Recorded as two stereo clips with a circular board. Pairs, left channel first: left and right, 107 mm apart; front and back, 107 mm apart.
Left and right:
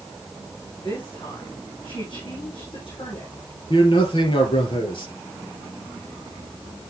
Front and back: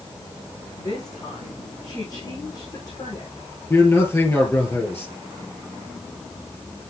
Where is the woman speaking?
50° left, 6 m.